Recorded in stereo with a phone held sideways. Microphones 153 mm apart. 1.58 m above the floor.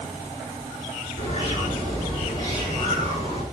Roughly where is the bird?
Left.